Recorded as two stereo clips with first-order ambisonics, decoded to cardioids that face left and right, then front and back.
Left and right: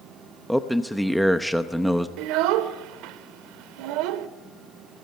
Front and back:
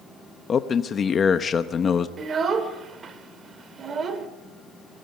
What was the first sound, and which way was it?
A man speaking, 5° left.